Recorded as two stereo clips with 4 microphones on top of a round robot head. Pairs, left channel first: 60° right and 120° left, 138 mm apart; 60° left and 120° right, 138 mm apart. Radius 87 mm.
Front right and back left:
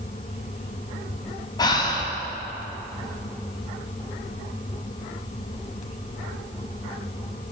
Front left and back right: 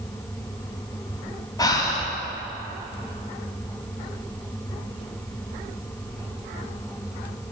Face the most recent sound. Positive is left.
turn(degrees=0)